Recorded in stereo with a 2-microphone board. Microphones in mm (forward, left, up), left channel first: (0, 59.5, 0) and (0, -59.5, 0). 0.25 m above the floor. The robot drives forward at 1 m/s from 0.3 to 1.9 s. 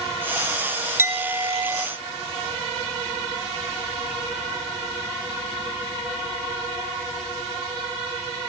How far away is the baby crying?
I don't hear a baby crying.